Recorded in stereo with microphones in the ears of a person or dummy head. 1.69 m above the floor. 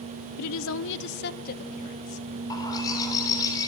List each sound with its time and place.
0.4 s a woman speaking: 85° left, 1.1 m; by 2.3 s 40° left (ahead or behind), 2.5 m
2.5 s a bird: 20° left (ahead or behind), 4.5 m